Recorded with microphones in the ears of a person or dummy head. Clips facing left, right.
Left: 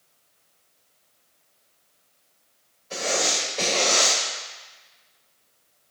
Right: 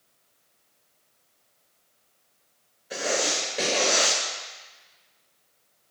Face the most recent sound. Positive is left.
turn(degrees=-20)  # may be behind; listen again after turning